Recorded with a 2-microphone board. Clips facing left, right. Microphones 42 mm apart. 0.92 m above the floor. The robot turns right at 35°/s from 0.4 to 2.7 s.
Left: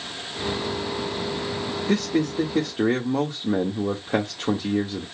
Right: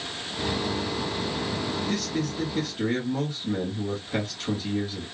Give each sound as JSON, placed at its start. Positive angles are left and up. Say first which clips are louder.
{"t": 1.9, "sound": "a man speaking", "louder": "left 6 dB", "side_deg": 75, "distance_m": 1.1}